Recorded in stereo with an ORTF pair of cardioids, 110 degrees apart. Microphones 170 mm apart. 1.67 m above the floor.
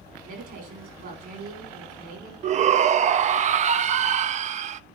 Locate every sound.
0.2 s a woman speaking: 60° right, 5 m
2.4 s a shout: 45° right, 0.6 m